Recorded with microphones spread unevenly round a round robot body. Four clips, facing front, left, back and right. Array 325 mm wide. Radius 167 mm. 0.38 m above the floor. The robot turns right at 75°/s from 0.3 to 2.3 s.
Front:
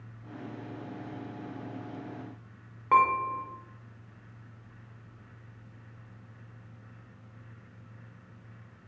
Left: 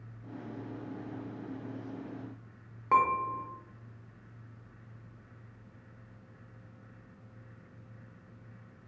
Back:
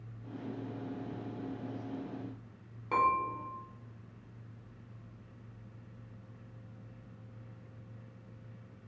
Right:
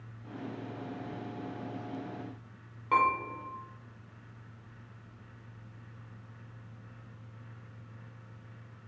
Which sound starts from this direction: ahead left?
Dishes clattering, at 2.9 s.